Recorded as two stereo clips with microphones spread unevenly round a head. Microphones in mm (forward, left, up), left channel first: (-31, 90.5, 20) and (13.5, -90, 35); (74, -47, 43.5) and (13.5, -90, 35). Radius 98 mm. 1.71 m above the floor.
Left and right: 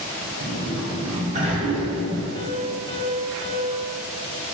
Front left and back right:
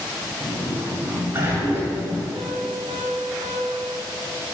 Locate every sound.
0.4 s a sliding door: 95° right, 1.8 m
2.4 s a piano: 170° left, 1.5 m